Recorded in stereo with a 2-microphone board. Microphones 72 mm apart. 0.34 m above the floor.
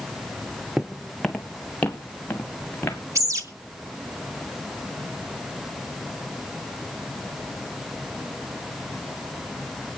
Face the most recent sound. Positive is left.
turn(degrees=-50)  # may be behind; listen again after turning